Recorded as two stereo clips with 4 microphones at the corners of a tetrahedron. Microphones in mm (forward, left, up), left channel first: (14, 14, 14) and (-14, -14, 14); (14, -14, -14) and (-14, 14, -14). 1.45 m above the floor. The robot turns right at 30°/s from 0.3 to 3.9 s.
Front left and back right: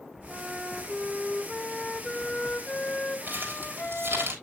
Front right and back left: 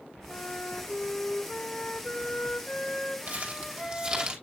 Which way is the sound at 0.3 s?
80° right.